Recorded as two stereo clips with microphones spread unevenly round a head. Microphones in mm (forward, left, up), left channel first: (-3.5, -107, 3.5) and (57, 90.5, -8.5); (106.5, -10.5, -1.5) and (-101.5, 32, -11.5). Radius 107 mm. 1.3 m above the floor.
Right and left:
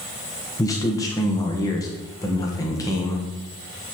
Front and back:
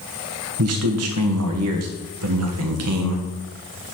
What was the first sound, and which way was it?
A man speaking, 175° left.